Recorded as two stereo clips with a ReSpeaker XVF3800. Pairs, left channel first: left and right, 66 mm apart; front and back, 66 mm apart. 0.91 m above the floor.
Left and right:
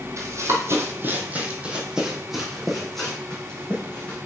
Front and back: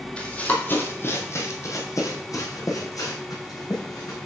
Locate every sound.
0.2 s running footsteps: 70° right, 1.5 m; by 4.2 s 15° left, 3 m